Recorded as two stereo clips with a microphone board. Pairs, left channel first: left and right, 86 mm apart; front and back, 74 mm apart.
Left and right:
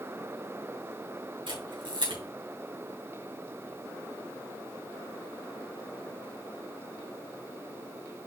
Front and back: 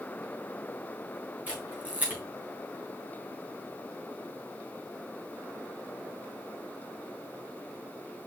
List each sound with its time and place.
1.5 s a camera shutter: 110° right, 4 m